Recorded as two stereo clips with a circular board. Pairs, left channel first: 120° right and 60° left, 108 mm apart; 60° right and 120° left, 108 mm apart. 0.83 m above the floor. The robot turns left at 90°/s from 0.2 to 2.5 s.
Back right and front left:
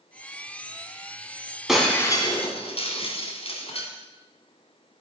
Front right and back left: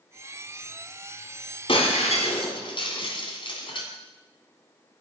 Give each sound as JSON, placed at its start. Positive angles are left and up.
{"t": 1.7, "sound": "breaking glass", "azimuth_deg": -25, "distance_m": 2.0}